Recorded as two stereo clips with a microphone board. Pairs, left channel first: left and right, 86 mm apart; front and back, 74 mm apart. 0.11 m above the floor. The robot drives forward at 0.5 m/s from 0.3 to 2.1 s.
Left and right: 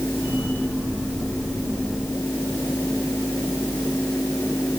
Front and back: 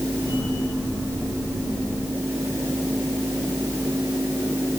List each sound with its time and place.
Only background noise.